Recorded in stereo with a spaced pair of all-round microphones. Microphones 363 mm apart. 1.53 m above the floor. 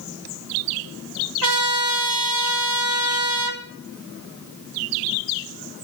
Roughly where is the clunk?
I don't hear a clunk.